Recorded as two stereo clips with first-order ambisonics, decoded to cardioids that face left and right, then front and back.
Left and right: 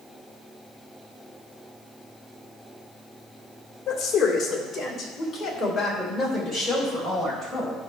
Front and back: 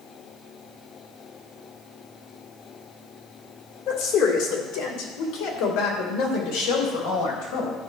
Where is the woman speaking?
30° left, 2.5 m; by 7.8 s 10° right, 4.5 m.